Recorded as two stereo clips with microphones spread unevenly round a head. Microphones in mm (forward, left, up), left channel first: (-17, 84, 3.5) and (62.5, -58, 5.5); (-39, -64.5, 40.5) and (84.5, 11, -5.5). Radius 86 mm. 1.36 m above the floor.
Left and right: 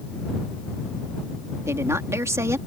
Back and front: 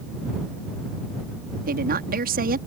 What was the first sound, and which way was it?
A woman speaking, 10° left.